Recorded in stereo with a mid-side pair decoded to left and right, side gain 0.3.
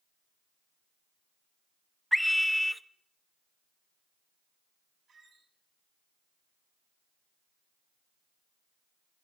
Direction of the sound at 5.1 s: 65° right.